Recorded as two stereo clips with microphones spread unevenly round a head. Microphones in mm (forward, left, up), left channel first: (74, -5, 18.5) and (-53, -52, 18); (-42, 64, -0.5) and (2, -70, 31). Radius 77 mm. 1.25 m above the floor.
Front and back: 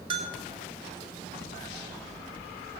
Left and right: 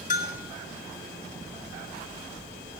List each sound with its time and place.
0.1 s a bell: 140° left, 1.9 m